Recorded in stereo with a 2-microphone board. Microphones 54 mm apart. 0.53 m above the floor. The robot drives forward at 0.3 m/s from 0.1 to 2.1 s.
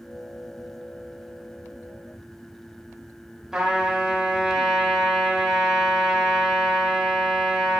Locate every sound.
3.5 s a trumpet: 10° right (ahead or behind), 1.2 m